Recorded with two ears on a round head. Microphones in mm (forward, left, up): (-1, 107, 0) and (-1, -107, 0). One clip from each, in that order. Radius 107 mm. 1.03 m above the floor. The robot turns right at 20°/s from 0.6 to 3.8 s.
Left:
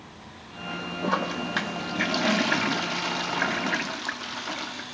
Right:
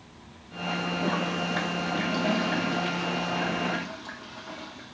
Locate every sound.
1.0 s a toilet flushing: 35° left, 0.6 m; by 5.0 s 90° left, 0.6 m